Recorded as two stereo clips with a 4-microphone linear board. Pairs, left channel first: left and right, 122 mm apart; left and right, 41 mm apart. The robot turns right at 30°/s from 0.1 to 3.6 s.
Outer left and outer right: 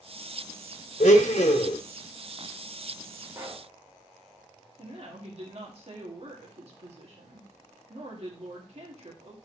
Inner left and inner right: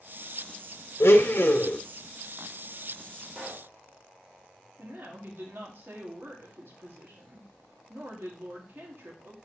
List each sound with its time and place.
1.0 s a blender: 70° left (ahead or behind), 1.0 m; by 1.8 s 55° left (ahead or behind), 1.0 m
3.4 s a pop: 15° right (ahead or behind), 3 m; by 3.7 s 25° right (ahead or behind), 3 m
4.8 s a woman speaking: 50° right (ahead or behind), 1.9 m